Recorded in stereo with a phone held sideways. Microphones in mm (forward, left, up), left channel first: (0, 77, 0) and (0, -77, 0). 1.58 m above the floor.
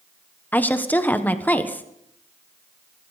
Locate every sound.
0.5 s a woman speaking: 10° left (ahead or behind), 1.2 m